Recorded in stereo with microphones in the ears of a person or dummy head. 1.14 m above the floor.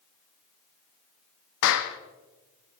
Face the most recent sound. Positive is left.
turn(degrees=70)  # may be behind; listen again after turning